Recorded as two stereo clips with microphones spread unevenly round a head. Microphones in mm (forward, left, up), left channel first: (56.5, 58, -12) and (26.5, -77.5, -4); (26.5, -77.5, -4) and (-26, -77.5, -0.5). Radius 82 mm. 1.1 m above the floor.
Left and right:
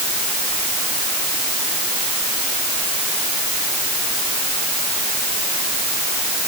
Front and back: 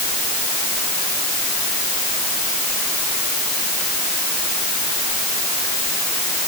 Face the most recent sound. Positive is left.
No sound to turn to.